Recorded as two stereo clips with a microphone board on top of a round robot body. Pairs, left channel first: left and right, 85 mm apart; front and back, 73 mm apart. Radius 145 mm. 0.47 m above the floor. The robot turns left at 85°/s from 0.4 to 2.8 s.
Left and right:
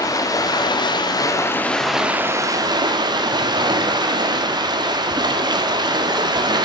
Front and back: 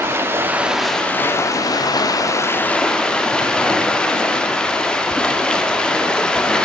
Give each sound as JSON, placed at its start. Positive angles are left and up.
{"t": 0.0, "sound": "running water", "azimuth_deg": 130, "distance_m": 1.0}